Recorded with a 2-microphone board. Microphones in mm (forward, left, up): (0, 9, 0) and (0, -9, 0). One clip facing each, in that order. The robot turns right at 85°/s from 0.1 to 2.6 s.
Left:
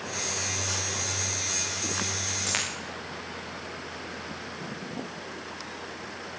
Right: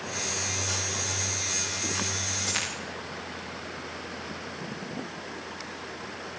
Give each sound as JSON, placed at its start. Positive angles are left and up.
{"t": 2.5, "sound": "a dropped coin", "side_deg": 45, "distance_m": 6.5}